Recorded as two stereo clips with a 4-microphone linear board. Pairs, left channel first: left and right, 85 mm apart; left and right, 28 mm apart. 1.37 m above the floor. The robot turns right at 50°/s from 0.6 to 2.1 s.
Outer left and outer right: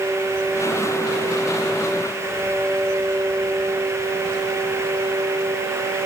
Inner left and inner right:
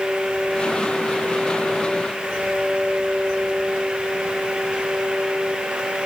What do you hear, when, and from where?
Only background noise.